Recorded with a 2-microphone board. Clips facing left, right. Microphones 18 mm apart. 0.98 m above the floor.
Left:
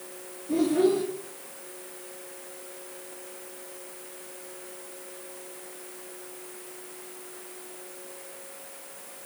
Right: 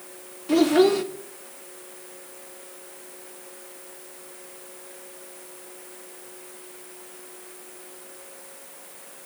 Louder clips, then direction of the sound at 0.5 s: Right 5 dB; 70° right (ahead or behind).